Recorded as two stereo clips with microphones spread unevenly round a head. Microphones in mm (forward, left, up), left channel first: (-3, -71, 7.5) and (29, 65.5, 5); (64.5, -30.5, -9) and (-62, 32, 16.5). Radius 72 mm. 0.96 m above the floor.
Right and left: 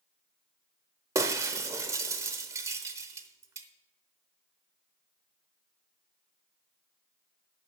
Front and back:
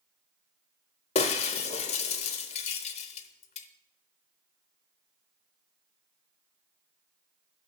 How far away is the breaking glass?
About 0.8 m.